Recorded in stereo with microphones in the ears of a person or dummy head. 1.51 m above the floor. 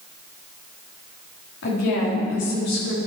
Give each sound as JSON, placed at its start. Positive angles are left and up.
{"t": 1.6, "sound": "a woman speaking", "side_deg": 70, "distance_m": 4.0}